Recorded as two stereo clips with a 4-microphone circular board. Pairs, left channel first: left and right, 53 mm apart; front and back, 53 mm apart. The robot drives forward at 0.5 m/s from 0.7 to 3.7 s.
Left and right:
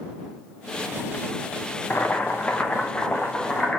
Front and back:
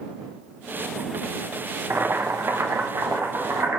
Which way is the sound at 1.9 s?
135° left.